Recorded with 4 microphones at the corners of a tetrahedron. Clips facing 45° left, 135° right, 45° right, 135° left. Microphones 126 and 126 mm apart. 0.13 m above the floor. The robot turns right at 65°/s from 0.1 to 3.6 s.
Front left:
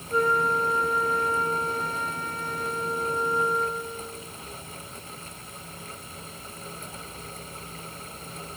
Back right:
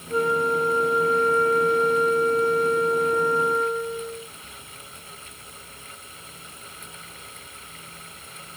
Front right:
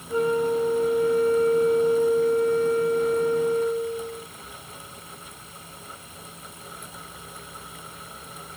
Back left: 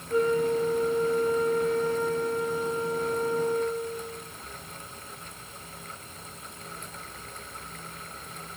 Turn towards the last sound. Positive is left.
turn(degrees=130)